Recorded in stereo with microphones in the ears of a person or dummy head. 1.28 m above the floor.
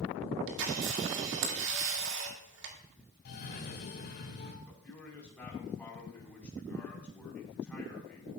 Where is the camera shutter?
75° right (ahead or behind), 2 m.